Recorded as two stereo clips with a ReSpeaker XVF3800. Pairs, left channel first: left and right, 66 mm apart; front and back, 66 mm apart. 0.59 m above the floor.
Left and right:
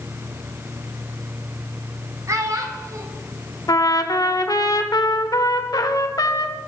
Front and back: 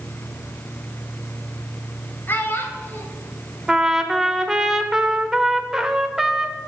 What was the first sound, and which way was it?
A child speaking, 55° right.